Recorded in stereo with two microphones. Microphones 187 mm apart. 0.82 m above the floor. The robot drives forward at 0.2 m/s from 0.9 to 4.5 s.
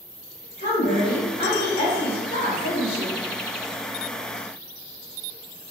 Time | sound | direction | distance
0.6 | a woman speaking | 60° left (ahead or behind) | 1.8 m